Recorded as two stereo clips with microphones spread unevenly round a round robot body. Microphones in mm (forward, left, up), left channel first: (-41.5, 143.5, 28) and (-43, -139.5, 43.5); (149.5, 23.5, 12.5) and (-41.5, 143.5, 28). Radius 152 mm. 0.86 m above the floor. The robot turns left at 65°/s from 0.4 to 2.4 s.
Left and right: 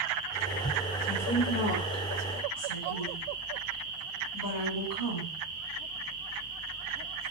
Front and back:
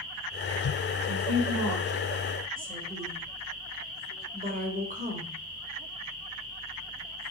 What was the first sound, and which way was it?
A woman speaking, straight behind.